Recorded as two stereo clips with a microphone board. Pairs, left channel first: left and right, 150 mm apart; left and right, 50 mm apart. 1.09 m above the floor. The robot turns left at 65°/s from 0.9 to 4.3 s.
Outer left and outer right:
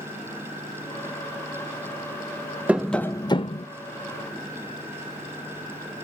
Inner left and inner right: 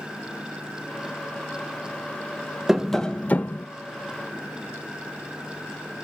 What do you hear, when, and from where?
2.7 s tapping: 170° right, 0.6 m; by 3.7 s 125° left, 0.6 m